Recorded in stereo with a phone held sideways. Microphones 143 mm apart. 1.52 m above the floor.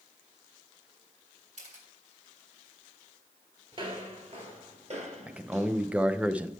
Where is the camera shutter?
60° right (ahead or behind), 2.5 m.